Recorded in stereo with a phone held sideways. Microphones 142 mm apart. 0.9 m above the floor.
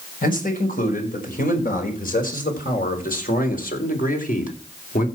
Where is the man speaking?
75° left (ahead or behind), 5.5 m; by 5.1 s 70° left (ahead or behind), 3.5 m.